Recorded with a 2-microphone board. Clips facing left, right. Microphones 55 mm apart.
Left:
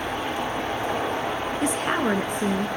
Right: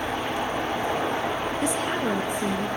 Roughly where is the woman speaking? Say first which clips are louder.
Left 4 dB; left.